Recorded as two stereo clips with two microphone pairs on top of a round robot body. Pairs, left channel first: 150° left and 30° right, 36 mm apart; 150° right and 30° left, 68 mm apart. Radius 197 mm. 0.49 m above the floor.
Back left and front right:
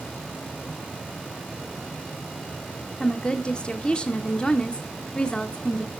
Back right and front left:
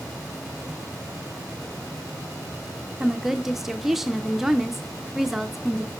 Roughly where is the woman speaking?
Behind left.